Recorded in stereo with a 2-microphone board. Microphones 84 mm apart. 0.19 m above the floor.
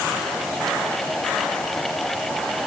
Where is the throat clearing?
I don't hear throat clearing.